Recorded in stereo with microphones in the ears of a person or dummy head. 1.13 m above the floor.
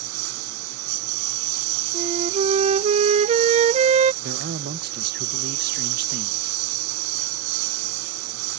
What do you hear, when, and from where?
0.0 s a lawn mower: 75° right (ahead or behind)
1.9 s a flute: 35° right (ahead or behind)
4.2 s a man speaking: 50° right (ahead or behind)